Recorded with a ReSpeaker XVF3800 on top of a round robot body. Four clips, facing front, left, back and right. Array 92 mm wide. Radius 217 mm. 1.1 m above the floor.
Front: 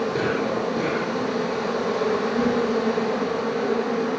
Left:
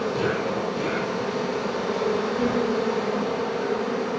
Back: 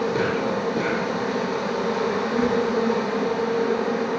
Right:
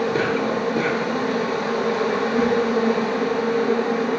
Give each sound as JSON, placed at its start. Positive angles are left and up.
{"t": 0.0, "sound": "an insect", "azimuth_deg": -90, "distance_m": 6.5}